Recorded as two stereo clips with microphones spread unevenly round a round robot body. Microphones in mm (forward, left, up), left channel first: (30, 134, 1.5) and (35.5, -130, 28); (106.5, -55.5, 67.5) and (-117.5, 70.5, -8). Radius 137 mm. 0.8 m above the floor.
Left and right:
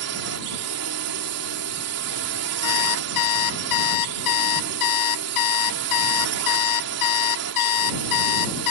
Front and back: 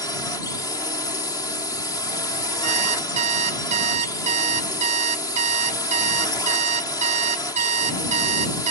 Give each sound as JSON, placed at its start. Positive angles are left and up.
{"t": 0.0, "sound": "a drone", "azimuth_deg": -115}
{"t": 2.6, "sound": "an alarm clock", "azimuth_deg": 85}